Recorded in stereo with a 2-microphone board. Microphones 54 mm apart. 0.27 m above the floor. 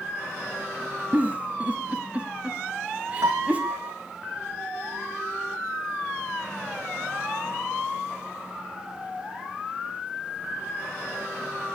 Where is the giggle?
30° right (ahead or behind), 1.7 m.